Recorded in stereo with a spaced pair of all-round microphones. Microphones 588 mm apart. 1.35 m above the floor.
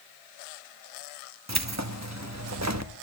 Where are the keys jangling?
25° right (ahead or behind), 1.2 m.